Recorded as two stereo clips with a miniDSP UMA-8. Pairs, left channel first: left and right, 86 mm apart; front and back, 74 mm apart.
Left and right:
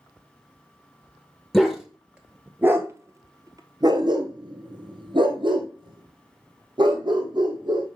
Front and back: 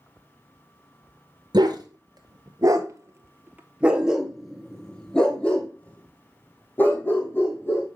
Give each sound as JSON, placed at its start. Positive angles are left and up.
{"t": 1.5, "sound": "a dog barking", "azimuth_deg": 180, "distance_m": 1.4}